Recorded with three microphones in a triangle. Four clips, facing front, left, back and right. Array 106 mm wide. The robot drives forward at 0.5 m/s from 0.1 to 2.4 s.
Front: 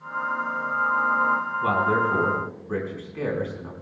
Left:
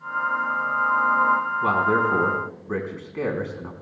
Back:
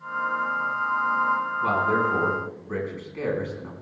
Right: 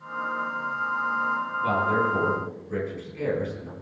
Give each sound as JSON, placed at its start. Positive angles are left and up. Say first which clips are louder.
{"t": 1.6, "sound": "a man speaking", "louder": "left 1 dB, front 1 dB", "azimuth_deg": 80, "distance_m": 4.5}